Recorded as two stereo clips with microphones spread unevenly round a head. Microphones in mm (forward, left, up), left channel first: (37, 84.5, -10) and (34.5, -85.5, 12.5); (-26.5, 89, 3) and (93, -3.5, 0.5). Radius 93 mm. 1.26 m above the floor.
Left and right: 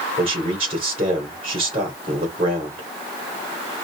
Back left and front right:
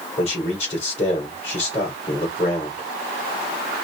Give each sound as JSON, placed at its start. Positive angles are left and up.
{"t": 0.2, "sound": "a man speaking", "azimuth_deg": -155, "distance_m": 2.5}